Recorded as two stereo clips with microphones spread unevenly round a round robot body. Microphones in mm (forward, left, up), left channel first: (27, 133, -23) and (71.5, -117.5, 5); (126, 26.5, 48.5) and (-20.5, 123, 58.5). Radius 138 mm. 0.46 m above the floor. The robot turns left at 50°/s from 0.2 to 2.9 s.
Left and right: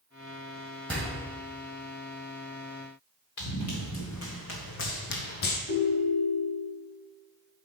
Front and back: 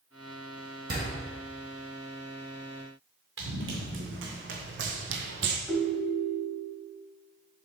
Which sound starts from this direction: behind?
A door slam, at 0.9 s.